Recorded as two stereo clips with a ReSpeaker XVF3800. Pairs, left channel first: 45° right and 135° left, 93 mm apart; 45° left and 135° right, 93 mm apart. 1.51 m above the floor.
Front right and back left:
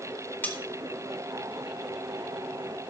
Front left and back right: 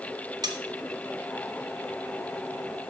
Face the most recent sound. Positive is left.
turn(degrees=-110)